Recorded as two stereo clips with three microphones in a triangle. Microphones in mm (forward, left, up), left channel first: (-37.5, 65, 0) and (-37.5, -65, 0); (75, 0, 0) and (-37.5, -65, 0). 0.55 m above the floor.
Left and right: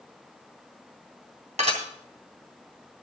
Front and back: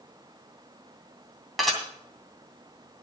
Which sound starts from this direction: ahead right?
Dishes clattering, at 1.6 s.